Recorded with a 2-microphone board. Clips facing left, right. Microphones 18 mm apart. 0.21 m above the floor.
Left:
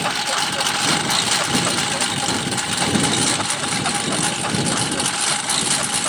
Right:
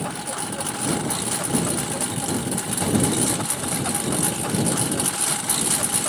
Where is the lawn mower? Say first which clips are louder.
Left 9 dB; 55° left (ahead or behind); by 6.1 s 25° left (ahead or behind).